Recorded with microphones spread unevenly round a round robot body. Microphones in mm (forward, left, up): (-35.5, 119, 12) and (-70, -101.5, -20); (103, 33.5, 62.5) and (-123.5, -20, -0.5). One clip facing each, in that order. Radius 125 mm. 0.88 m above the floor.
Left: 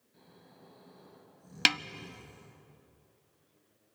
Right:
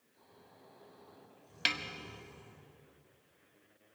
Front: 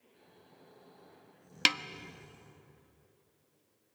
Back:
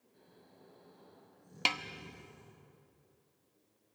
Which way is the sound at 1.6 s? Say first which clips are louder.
Left 7 dB, front 4 dB; 85° left.